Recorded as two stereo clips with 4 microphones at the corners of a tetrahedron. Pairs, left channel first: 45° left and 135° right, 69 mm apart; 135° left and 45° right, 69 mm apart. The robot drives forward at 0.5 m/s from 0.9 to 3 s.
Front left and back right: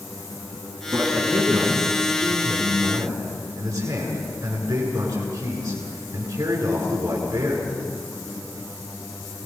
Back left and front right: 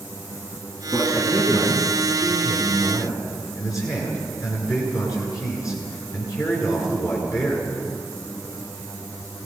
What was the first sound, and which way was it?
A man speaking, 175° left.